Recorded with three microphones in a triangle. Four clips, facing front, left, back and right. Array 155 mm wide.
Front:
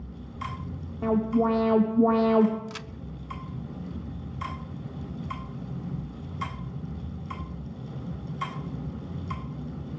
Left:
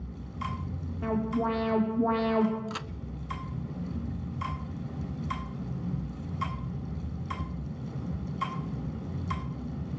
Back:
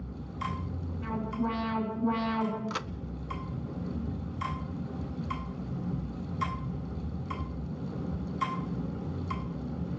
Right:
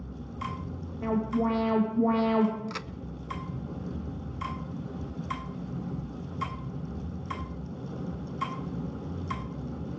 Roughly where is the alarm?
Ahead.